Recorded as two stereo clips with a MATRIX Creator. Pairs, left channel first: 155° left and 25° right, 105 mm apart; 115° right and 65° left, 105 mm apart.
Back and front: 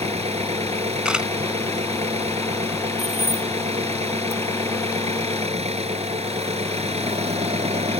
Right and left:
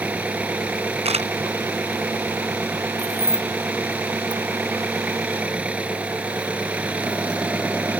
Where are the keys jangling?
110° right.